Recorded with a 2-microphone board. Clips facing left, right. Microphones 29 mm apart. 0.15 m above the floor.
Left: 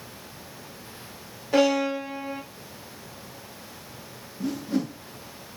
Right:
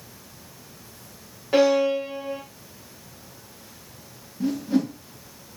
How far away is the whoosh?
About 6 m.